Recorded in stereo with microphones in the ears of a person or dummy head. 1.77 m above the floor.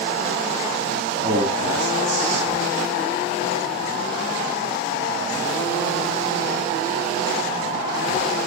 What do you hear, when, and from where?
1.2 s a man speaking: 45° right (ahead or behind), 5 m